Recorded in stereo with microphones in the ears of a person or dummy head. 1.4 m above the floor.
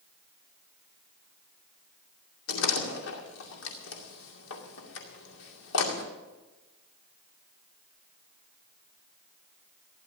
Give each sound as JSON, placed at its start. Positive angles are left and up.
{"t": 2.5, "sound": "a door slam", "side_deg": 70, "distance_m": 2.5}